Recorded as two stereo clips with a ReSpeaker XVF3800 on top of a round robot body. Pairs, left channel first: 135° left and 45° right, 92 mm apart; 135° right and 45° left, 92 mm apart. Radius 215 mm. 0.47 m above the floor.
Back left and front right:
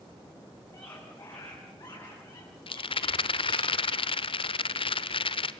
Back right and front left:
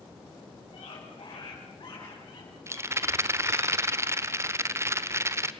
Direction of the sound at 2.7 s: 110° left.